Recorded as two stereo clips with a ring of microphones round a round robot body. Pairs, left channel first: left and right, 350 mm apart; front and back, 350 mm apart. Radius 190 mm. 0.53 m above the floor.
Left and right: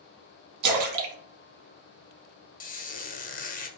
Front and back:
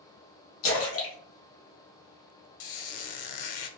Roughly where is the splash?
Ahead right.